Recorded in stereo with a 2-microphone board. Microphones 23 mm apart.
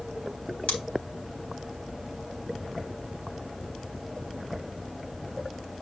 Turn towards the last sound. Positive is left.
turn(degrees=75)  # may be behind; listen again after turning